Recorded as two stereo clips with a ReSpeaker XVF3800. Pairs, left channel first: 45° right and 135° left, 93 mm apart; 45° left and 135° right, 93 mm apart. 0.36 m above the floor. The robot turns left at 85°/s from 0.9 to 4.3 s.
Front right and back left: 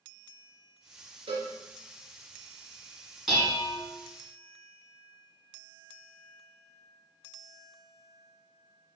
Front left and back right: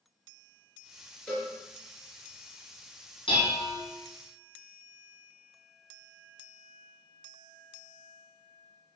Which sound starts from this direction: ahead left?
Dishes clattering, at 3.3 s.